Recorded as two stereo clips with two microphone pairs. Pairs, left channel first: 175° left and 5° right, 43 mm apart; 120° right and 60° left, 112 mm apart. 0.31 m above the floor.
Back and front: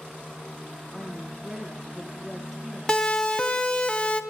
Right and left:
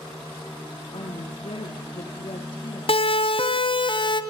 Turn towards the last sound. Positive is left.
turn(degrees=-130)